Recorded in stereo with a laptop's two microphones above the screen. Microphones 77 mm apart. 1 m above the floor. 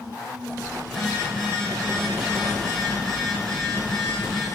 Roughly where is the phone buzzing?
Centre.